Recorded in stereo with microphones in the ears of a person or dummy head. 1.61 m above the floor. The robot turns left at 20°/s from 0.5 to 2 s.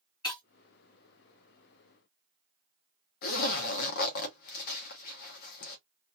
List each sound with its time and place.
0.2 s breaking glass: 25° left (ahead or behind), 1.9 m
3.2 s a zipper: 55° left (ahead or behind), 0.7 m